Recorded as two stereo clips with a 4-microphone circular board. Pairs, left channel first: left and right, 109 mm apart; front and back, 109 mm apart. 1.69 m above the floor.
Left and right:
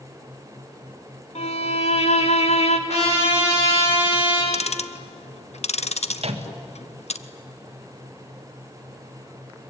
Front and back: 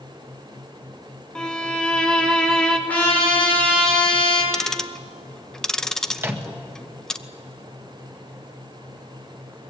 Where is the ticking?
85° left, 0.8 m.